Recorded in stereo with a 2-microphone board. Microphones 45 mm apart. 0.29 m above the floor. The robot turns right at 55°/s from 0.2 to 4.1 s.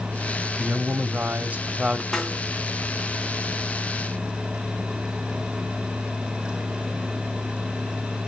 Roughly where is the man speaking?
Behind right.